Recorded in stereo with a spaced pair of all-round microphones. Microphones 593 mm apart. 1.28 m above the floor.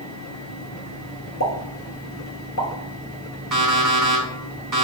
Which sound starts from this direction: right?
An alarm clock, at 3.5 s.